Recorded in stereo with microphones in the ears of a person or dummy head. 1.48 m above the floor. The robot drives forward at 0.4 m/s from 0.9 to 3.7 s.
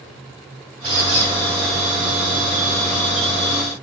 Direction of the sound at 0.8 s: 35° right (ahead or behind).